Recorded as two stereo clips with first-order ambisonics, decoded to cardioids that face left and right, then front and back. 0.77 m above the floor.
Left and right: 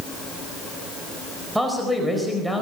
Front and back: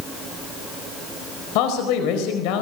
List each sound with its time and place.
1.6 s a man speaking: 5° right, 4.5 m